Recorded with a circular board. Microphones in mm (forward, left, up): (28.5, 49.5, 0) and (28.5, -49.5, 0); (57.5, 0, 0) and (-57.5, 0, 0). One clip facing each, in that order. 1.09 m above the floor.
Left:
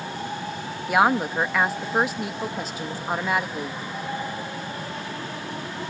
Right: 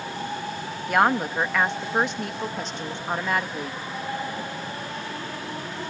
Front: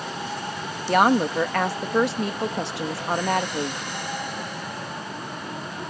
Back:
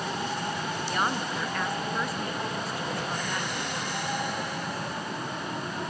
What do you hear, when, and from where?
0.9 s a woman speaking: 5° left